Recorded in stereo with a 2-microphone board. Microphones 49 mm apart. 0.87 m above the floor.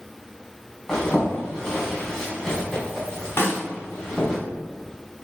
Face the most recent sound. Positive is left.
turn(degrees=50)  # may be behind; listen again after turning